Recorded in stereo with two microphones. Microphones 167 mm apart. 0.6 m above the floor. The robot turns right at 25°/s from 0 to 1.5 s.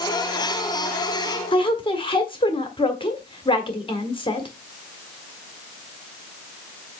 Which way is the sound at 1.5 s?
35° left (ahead or behind).